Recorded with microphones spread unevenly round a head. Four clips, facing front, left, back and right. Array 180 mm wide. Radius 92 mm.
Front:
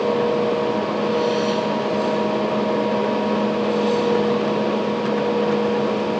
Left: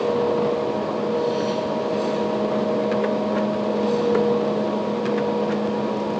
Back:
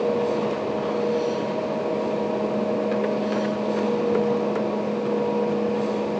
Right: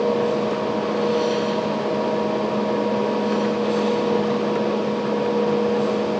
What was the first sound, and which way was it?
Only background noise.